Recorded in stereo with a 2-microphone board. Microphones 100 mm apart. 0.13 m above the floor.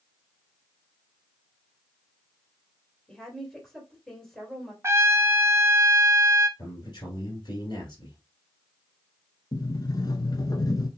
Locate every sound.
3.1 s a woman speaking: 5° left (ahead or behind), 2.5 m
4.8 s a trumpet: 25° right (ahead or behind), 0.6 m
6.6 s a man speaking: 45° left (ahead or behind), 2.5 m
9.5 s a sliding door: 40° left (ahead or behind), 0.7 m